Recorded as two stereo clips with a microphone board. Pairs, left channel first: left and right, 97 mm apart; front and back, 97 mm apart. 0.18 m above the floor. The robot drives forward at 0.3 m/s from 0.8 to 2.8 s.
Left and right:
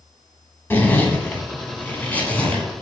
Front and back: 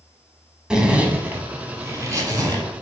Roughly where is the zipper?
Left.